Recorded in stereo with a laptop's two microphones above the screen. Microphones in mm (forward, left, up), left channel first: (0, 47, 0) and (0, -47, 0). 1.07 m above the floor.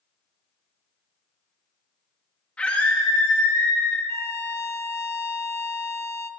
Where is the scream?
10° left (ahead or behind), 2 m; by 4.0 s 35° left (ahead or behind), 2.0 m.